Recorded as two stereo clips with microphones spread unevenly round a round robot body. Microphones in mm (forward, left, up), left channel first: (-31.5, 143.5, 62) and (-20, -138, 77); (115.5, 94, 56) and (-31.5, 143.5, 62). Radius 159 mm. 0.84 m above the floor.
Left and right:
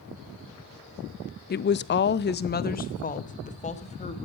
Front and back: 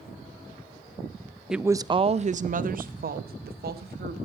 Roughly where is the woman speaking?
Left.